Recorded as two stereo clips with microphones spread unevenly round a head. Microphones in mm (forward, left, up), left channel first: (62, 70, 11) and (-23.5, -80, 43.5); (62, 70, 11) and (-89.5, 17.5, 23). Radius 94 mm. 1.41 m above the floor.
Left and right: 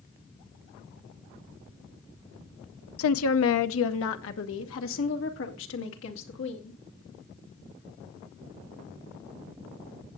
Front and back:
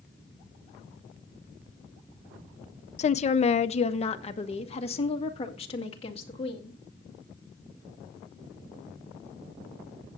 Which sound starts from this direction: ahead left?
A woman speaking, at 3.0 s.